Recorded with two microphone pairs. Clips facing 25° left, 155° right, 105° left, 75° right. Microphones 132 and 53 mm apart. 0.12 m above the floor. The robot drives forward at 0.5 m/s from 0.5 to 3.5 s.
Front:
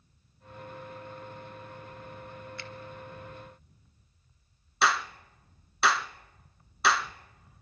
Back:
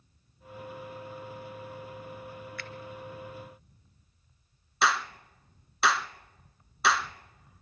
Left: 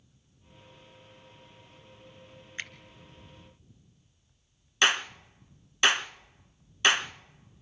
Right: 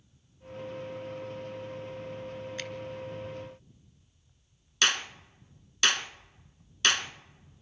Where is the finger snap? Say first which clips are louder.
Back 1 dB, left 4 dB; 70° left, 1.0 m; by 2.7 s 75° left, 1.0 m.